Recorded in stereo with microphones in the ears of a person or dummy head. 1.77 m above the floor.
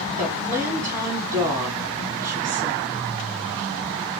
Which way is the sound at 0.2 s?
15° right (ahead or behind).